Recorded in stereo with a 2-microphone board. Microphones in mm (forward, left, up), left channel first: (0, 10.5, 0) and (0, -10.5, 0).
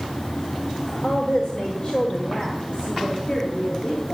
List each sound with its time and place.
1.0 s a woman speaking: 40° left (ahead or behind), 1.2 m; by 4.2 s 75° left (ahead or behind), 3 m